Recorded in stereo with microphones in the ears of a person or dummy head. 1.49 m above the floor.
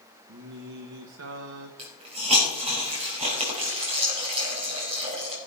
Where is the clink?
I don't hear a clink.